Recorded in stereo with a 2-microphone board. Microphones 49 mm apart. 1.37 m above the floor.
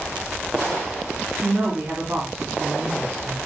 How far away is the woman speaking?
About 2 m.